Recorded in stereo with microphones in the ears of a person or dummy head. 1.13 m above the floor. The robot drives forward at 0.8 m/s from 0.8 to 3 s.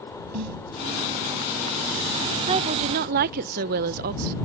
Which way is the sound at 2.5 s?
30° right (ahead or behind).